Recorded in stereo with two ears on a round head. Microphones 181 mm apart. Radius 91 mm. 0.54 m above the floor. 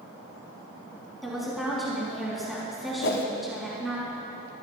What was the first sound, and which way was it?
A woman speaking, centre (ahead or behind).